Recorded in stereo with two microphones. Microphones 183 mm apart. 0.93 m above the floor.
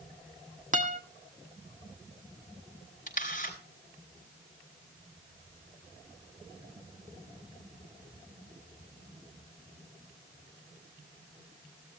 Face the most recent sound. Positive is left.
turn(degrees=45)  # may be behind; listen again after turning